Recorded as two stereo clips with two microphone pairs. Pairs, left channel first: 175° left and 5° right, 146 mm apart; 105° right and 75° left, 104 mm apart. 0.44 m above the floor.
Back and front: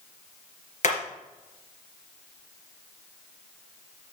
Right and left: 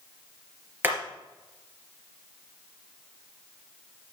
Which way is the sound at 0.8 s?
145° left.